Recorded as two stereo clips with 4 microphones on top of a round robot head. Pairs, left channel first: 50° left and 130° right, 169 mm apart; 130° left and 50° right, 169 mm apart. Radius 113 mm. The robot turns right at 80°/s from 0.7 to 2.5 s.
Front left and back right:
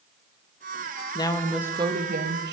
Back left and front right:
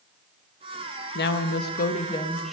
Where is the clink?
No clink in this recording.